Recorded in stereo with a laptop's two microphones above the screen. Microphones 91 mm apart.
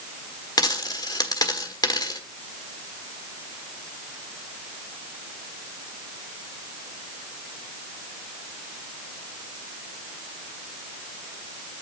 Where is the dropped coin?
45° left (ahead or behind), 1.4 m.